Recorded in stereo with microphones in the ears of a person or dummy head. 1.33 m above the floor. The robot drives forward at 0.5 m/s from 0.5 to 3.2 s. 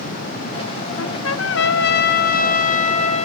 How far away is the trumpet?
About 0.9 m.